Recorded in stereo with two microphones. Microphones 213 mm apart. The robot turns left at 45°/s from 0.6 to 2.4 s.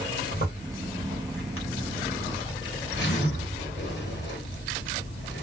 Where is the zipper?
140° left, 1.1 m; by 5.4 s 55° left, 1.1 m.